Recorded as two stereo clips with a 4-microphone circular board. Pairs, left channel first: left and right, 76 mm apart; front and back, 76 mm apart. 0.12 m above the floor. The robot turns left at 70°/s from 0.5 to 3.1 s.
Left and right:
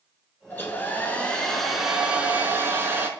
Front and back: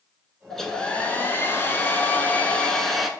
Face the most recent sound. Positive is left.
turn(degrees=-100)